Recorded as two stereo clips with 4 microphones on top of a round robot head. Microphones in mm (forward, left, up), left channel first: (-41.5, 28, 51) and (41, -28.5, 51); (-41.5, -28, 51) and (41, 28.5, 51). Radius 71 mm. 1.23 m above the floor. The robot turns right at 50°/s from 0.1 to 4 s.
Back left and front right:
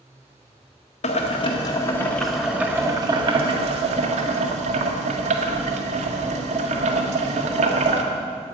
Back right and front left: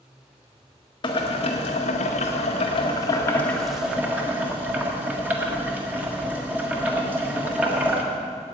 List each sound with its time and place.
1.0 s boiling: 170° left, 1.6 m; by 8.0 s 40° right, 1.6 m